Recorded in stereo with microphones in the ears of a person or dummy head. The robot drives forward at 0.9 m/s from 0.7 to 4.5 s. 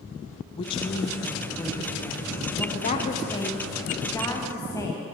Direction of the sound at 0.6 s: 20° left (ahead or behind).